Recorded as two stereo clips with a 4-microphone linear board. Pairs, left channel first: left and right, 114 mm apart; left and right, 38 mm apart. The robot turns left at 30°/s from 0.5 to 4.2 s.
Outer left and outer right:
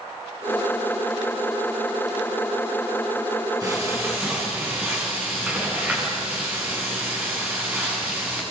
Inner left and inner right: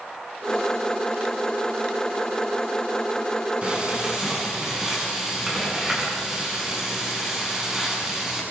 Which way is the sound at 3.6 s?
30° right (ahead or behind).